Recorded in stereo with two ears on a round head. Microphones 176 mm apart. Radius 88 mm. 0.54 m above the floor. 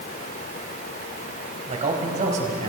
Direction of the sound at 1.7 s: 40° right (ahead or behind).